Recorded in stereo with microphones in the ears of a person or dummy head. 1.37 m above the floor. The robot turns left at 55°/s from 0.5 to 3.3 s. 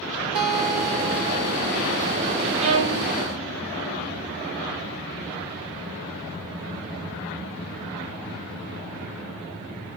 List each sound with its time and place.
0.3 s a guitar: 150° right, 1.7 m; by 1.7 s 140° left, 1.7 m
2.6 s a violin: 35° right (ahead or behind), 1.6 m; by 3.1 s 20° right (ahead or behind), 1.6 m